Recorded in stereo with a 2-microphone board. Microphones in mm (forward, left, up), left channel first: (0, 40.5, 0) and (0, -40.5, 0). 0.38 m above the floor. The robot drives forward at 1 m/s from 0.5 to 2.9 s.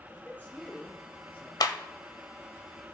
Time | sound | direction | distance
0.1 | a man speaking | 20° left (ahead or behind) | 6 m
1.6 | a clap | 60° left (ahead or behind) | 1.3 m